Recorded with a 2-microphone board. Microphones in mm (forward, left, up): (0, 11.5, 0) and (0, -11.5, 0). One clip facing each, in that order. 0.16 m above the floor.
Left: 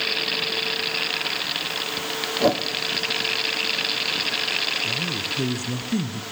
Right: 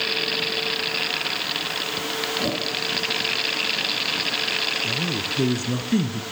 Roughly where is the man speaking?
Centre.